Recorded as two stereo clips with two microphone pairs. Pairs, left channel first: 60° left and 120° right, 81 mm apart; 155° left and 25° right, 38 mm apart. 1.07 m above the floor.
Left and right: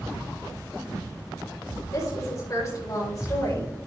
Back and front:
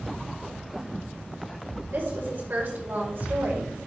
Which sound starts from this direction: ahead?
A woman speaking, at 1.9 s.